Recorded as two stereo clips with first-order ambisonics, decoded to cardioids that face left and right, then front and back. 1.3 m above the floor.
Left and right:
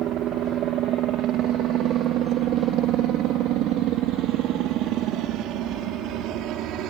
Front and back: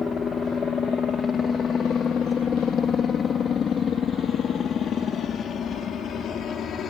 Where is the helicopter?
65° right; by 6.9 s 55° right.